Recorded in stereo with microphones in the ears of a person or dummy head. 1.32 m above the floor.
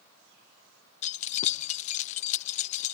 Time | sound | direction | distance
1.0 | keys jangling | 45° left (ahead or behind) | ?